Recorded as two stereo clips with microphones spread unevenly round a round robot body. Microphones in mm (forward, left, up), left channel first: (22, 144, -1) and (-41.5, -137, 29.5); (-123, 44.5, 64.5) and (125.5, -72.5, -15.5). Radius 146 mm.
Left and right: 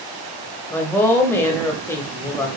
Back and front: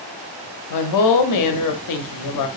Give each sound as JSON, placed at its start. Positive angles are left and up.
{"t": 0.7, "sound": "a woman speaking", "azimuth_deg": 155, "distance_m": 0.6}